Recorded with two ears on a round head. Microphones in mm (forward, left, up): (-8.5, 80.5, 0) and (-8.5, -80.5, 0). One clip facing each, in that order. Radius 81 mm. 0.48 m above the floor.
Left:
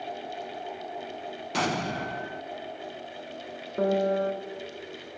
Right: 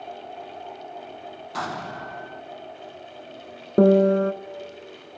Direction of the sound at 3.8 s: 60° right (ahead or behind).